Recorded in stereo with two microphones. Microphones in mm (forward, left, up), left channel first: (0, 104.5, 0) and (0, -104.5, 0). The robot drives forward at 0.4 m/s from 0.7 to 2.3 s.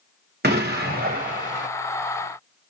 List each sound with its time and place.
0.4 s an explosion: 55° right (ahead or behind), 0.9 m; by 1.7 s 40° right (ahead or behind), 1.2 m